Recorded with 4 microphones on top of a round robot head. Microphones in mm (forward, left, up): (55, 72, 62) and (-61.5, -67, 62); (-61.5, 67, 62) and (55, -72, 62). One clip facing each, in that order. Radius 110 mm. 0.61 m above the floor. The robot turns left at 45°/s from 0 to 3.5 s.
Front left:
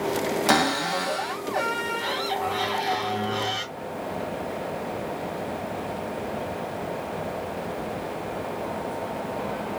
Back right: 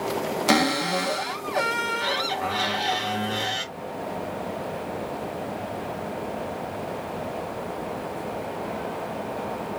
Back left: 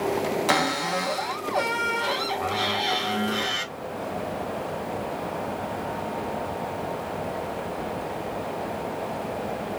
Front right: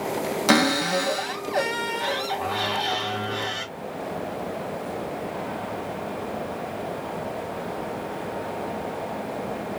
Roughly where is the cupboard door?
Ahead right.